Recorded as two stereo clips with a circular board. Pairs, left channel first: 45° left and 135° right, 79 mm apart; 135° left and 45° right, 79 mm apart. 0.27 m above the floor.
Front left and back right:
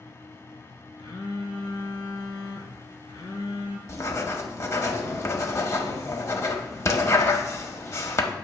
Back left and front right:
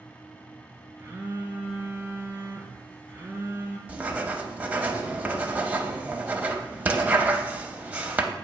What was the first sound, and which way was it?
A phone buzzing, 20° left.